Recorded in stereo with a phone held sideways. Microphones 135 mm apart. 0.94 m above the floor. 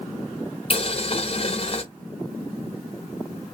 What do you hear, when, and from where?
0.7 s boiling: 45° left (ahead or behind), 0.7 m